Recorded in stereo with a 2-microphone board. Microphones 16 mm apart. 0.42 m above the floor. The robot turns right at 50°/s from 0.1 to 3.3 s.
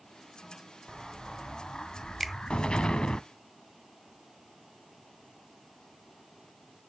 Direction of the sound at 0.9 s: 5° right.